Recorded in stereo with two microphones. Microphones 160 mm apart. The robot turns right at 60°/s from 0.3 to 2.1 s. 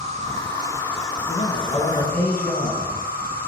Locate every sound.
0.0 s an insect: 45° right, 0.8 m; by 3.5 s 65° left, 0.8 m
1.3 s a man speaking: 110° left, 1.3 m; by 2.9 s 160° left, 1.3 m